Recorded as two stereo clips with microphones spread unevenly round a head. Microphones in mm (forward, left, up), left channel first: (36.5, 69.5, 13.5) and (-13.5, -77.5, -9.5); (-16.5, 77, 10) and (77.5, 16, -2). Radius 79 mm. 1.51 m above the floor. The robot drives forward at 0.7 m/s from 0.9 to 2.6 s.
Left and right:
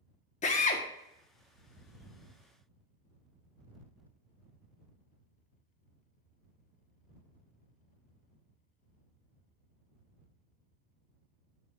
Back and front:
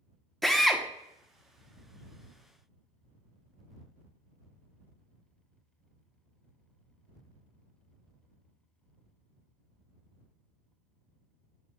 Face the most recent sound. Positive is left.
turn(degrees=130)